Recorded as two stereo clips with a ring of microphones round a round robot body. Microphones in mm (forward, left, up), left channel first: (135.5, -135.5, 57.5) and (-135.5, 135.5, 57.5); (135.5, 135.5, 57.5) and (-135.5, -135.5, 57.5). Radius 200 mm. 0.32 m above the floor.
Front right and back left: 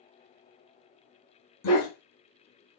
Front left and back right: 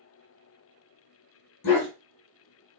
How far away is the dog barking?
About 1.3 m.